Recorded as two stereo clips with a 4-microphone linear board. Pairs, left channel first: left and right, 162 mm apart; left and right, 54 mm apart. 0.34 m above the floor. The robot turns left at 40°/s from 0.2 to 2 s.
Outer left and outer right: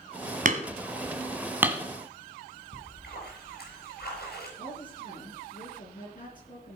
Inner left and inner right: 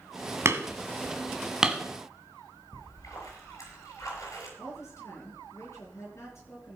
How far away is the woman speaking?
About 7.5 m.